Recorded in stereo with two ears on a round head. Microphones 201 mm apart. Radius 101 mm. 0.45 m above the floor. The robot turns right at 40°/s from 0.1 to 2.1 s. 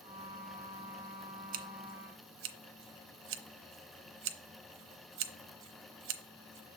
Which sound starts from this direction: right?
Scissors, at 1.5 s.